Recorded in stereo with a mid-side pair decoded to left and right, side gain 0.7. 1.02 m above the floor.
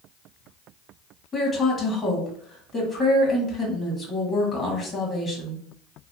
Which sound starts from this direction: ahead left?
A woman speaking, at 1.3 s.